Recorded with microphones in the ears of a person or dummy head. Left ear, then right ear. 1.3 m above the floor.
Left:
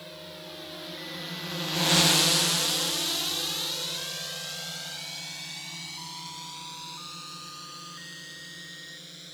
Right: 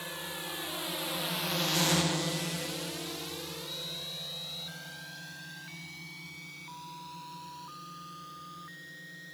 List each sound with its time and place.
0.0 s a drone: 30° right (ahead or behind); by 9.3 s 35° left (ahead or behind)